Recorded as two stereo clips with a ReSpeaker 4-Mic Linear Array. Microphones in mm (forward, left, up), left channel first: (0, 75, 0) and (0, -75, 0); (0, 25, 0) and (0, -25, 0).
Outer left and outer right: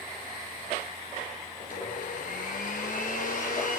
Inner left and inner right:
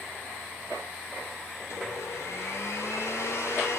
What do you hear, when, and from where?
1.6 s a blender: 70° left (ahead or behind), 4 m